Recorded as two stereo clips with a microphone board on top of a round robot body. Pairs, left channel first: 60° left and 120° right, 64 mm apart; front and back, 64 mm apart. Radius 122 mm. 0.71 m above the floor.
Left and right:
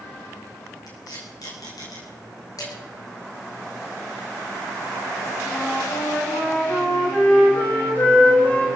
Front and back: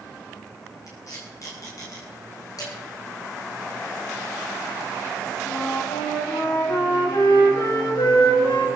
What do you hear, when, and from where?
0.9 s tape being pulled: 40° left, 9.5 m
2.6 s dishes clattering: 30° left, 9 m
5.5 s a flute: straight ahead, 6 m